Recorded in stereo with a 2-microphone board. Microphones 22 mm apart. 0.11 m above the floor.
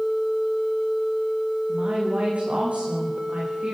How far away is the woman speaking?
About 9 m.